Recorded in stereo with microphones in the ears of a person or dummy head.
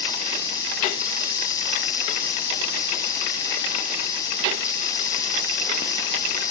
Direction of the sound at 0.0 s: 20° left (ahead or behind).